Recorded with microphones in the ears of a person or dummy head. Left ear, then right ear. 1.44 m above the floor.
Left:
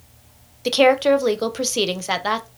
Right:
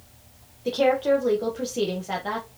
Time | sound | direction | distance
0.7 | a woman speaking | 70° left (ahead or behind) | 0.9 m